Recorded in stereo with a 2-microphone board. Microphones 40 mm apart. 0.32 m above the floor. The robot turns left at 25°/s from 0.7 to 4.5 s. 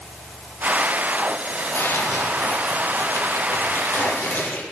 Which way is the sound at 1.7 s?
115° left.